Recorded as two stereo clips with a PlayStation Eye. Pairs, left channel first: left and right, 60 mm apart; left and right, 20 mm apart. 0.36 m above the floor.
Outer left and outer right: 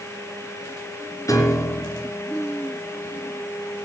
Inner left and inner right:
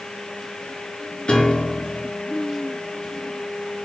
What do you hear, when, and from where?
1.3 s a piano: 65° left (ahead or behind), 3.5 m